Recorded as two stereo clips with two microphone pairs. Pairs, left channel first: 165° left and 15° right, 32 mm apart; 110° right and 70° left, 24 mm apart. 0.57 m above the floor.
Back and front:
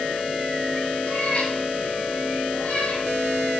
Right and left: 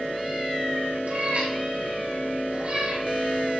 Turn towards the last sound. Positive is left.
turn(degrees=130)